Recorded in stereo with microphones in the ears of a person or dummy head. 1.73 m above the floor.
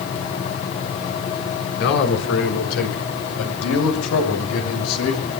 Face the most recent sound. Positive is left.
turn(degrees=85)